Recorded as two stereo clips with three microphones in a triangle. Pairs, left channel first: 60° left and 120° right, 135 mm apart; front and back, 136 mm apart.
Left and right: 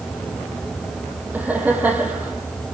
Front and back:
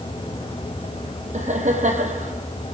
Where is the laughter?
165° left, 3 m.